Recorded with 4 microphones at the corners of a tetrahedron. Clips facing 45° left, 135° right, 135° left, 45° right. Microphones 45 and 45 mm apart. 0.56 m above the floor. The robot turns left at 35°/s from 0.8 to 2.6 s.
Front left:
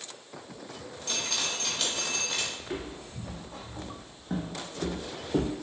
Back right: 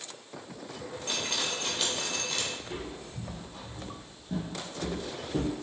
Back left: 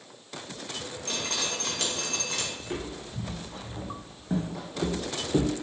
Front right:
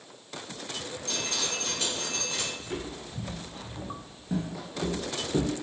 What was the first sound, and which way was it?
Dripping, 165° left.